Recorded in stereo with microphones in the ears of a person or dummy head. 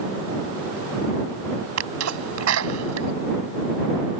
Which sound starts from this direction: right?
A sneeze, at 1.8 s.